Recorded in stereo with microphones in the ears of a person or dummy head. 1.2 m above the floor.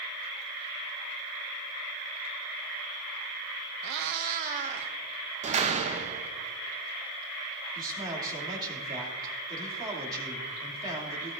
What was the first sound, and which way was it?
A cat meowing, 60° right (ahead or behind).